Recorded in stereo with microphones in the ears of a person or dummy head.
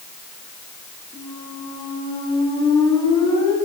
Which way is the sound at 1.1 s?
25° left (ahead or behind).